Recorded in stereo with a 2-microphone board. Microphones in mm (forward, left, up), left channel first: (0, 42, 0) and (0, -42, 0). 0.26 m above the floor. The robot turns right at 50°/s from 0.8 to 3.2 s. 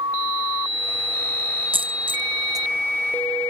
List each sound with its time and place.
1.7 s a dropped coin: 90° right; by 2.7 s 45° right (ahead or behind)